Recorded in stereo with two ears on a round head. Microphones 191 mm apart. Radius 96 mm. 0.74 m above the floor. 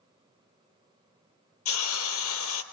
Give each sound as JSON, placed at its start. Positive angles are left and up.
{"t": 1.6, "sound": "a hiss", "side_deg": 75, "distance_m": 3.5}